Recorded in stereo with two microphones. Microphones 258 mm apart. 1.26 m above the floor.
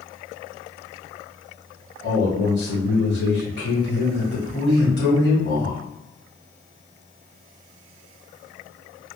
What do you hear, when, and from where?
2.0 s a man speaking: 45° left (ahead or behind), 1.5 m